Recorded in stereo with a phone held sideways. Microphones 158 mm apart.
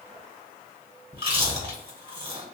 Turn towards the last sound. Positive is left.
turn(degrees=-35)  # may be behind; listen again after turning